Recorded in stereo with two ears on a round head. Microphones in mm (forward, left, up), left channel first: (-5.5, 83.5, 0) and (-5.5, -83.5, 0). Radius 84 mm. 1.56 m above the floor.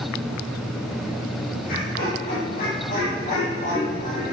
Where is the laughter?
50° left (ahead or behind), 6 m; by 4.3 s 35° left (ahead or behind), 3.5 m.